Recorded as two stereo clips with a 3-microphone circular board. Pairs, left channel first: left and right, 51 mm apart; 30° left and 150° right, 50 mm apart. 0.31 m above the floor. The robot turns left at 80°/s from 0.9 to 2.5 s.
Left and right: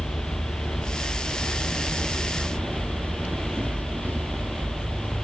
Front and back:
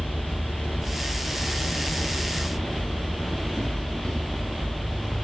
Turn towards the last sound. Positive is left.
turn(degrees=-45)